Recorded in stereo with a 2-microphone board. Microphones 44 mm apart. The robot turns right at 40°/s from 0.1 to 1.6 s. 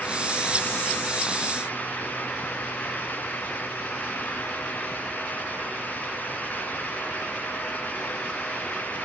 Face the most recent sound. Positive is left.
No sound to turn to.